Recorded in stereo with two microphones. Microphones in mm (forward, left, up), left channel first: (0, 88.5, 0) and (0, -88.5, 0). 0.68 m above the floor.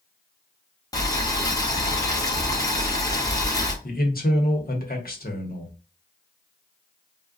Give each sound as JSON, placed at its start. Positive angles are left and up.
{"t": 0.9, "sound": "boiling", "side_deg": 20, "distance_m": 0.7}
{"t": 3.8, "sound": "a man speaking", "side_deg": 55, "distance_m": 0.9}